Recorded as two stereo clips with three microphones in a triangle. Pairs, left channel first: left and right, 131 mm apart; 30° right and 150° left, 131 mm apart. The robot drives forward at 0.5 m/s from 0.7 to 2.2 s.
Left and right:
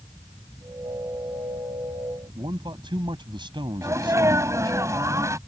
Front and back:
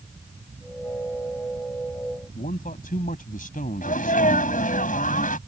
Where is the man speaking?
35° right.